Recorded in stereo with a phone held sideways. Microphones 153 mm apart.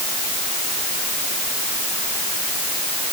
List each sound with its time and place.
Only background noise.